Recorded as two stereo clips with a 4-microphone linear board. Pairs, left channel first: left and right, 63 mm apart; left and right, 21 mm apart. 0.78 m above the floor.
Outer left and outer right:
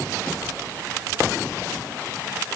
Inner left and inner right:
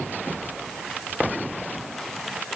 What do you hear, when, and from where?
Only background noise.